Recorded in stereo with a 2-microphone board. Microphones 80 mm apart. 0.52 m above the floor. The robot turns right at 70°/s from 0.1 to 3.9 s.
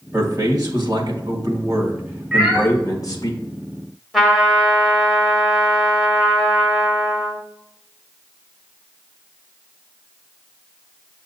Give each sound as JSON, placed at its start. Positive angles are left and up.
{"t": 0.1, "sound": "a man speaking", "azimuth_deg": -150, "distance_m": 1.7}
{"t": 2.3, "sound": "a cat meowing", "side_deg": 5, "distance_m": 3.0}
{"t": 4.1, "sound": "a trumpet", "side_deg": 5, "distance_m": 1.5}